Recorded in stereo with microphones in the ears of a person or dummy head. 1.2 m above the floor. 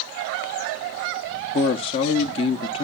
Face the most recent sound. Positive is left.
turn(degrees=25)  # may be behind; listen again after turning